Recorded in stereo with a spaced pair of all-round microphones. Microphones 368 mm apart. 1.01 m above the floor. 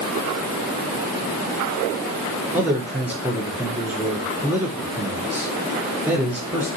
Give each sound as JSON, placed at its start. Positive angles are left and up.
{"t": 2.5, "sound": "a man speaking", "side_deg": -5, "distance_m": 0.5}